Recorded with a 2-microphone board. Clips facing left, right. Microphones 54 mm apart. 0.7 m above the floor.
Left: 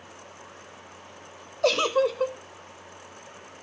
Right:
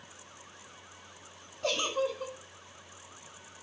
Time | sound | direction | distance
1.6 | a giggle | 80° left | 0.7 m